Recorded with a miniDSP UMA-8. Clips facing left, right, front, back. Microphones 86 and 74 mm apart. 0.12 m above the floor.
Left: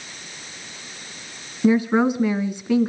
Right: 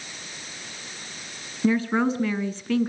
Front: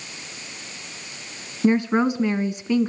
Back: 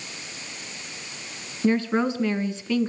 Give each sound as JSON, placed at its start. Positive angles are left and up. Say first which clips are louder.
{"t": 1.6, "sound": "a woman speaking", "louder": "left 4 dB, front 3 dB", "azimuth_deg": 40, "distance_m": 1.2}